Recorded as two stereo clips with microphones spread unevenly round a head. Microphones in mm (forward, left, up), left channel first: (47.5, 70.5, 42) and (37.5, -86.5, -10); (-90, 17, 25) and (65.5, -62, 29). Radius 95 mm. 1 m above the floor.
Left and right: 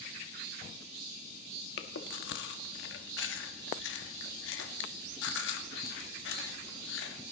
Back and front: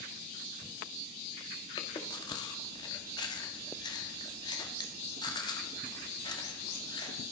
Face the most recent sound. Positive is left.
turn(degrees=85)